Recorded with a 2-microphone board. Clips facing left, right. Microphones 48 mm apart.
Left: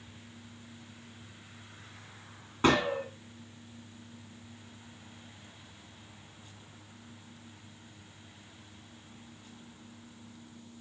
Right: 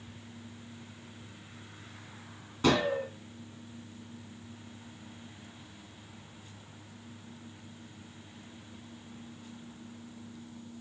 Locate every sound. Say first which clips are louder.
2.6 s a gunshot: left 1 dB; 35° left (ahead or behind), 1.5 m